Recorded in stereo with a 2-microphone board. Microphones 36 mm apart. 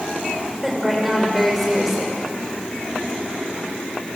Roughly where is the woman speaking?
Centre.